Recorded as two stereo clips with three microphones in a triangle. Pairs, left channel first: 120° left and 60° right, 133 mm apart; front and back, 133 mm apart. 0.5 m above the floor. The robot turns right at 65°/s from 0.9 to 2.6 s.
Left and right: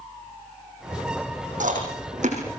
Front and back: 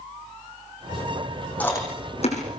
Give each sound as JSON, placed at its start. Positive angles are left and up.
{"t": 1.6, "sound": "chewing", "azimuth_deg": -80, "distance_m": 9.5}